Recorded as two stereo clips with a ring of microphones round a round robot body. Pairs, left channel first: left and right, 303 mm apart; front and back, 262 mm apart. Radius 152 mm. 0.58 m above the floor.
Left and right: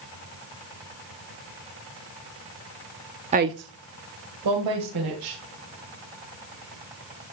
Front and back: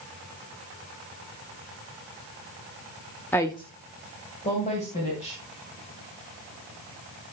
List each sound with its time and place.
3.3 s a woman speaking: 70° right, 0.6 m